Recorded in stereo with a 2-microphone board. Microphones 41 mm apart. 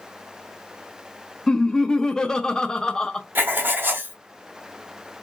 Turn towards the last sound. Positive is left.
turn(degrees=-55)  # may be behind; listen again after turning